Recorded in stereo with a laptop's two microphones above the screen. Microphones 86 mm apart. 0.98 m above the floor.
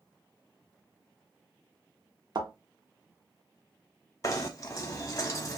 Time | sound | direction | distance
2.4 | a thud | 50° right (ahead or behind) | 0.9 m
4.2 | knocking | 40° left (ahead or behind) | 0.8 m